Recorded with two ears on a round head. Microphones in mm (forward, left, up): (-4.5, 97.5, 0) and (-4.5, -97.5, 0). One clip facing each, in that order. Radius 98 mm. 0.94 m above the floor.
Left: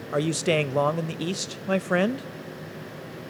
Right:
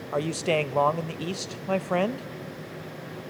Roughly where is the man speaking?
Centre.